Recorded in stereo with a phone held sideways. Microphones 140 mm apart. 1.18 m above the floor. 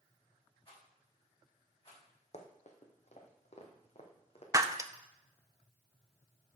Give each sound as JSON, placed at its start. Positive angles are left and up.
{"t": 0.7, "sound": "a rattle", "side_deg": 40, "distance_m": 6.0}
{"t": 2.3, "sound": "running footsteps", "side_deg": 55, "distance_m": 1.9}
{"t": 4.5, "sound": "breaking glass", "side_deg": -20, "distance_m": 0.6}